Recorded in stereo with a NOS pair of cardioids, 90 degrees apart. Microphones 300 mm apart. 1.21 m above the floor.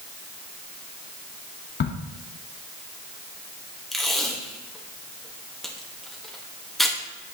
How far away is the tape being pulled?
About 1.4 m.